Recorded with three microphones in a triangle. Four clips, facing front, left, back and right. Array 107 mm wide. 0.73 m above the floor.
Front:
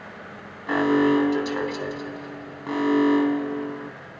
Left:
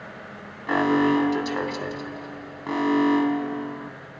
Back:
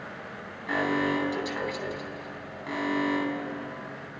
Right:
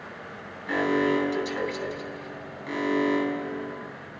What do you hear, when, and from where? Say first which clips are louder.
0.7 s an alarm: left 4 dB, front 8 dB; 60° left, 3.5 m